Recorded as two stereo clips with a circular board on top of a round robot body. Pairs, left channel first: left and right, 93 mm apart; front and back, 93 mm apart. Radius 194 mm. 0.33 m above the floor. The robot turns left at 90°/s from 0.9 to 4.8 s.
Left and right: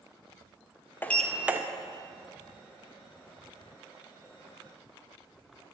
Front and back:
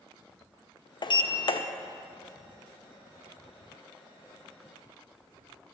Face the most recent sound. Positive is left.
turn(degrees=45)